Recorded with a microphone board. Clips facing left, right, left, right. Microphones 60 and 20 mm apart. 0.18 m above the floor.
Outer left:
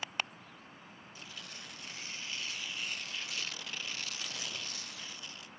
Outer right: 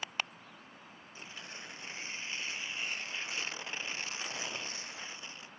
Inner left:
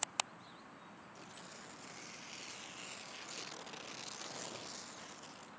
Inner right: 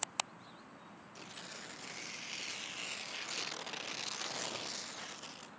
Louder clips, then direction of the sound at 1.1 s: Outer right 3 dB, inner right 7 dB; 30° right (ahead or behind).